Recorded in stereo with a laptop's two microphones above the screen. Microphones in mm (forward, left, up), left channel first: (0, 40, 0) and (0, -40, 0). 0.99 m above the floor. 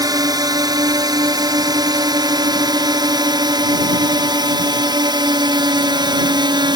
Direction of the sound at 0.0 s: 50° right (ahead or behind).